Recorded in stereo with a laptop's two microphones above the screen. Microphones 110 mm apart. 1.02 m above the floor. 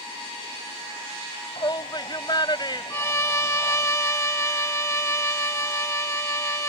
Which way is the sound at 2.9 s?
25° left (ahead or behind).